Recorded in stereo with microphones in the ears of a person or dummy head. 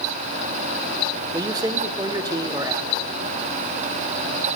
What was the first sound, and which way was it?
A man speaking, 20° right (ahead or behind).